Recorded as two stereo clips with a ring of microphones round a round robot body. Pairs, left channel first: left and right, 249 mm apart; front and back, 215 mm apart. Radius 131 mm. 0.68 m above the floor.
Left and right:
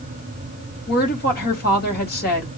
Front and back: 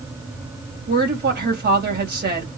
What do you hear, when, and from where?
0.9 s a woman speaking: 140° left, 4 m